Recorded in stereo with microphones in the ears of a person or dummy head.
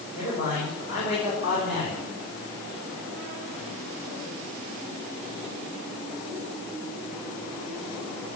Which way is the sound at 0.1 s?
50° left (ahead or behind).